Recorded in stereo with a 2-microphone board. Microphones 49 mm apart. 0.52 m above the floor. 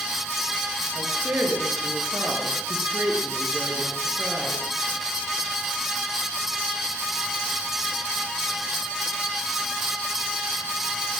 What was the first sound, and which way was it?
A woman speaking, 45° right (ahead or behind).